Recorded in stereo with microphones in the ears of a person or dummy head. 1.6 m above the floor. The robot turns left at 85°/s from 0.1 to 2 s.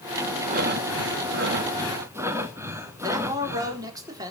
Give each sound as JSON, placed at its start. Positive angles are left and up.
{"t": 0.5, "sound": "breathing", "azimuth_deg": -40, "distance_m": 1.9}
{"t": 3.0, "sound": "a man speaking", "side_deg": -20, "distance_m": 4.0}